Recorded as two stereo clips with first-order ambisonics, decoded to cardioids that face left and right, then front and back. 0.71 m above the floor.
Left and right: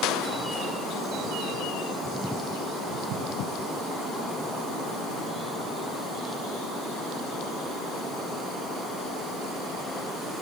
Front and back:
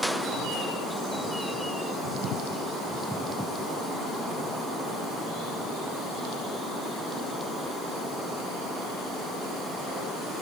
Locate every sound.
Only background noise.